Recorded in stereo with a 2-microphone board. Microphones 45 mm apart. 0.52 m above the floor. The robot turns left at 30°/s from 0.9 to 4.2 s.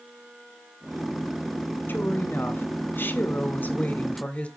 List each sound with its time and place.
1.9 s a woman speaking: 110° left, 1.7 m; by 4.5 s 40° left, 1.7 m